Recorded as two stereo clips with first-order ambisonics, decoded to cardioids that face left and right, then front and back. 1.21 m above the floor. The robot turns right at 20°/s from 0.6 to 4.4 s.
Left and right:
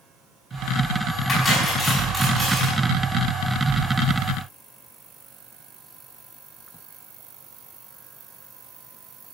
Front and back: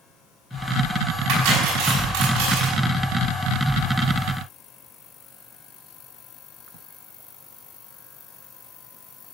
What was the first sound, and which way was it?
Cutlery clinking, 155° left.